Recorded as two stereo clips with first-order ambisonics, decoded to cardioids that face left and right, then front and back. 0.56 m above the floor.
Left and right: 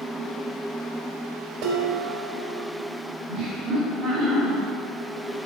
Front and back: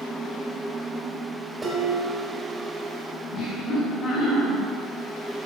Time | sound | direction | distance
1.6 | dishes clattering | 100° right | 1.4 m
3.3 | laughter | 40° right | 1.7 m